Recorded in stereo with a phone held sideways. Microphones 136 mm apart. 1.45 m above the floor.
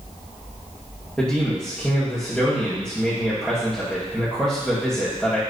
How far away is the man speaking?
About 2 m.